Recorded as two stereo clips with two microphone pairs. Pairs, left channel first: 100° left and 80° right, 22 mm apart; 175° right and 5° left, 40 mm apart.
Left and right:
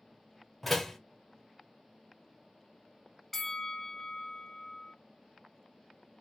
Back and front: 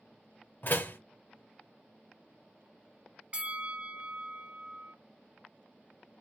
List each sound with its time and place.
0.6 s a door slam: straight behind, 1.1 m
3.3 s a bell: 35° left, 0.6 m